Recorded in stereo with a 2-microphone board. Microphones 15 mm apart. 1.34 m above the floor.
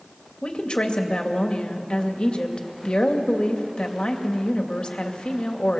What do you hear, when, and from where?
0.4 s a woman speaking: 80° left, 2.5 m